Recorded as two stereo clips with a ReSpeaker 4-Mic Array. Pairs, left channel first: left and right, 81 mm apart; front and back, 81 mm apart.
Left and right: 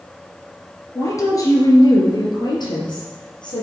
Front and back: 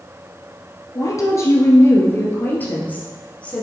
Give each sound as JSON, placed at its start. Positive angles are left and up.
{"t": 0.9, "sound": "a woman speaking", "azimuth_deg": 40, "distance_m": 2.5}